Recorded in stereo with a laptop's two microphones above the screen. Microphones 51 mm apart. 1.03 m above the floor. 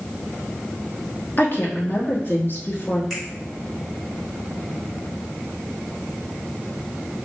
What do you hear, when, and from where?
1.4 s a woman speaking: 40° left (ahead or behind), 1.3 m
3.1 s a finger snap: 5° right (ahead or behind), 2 m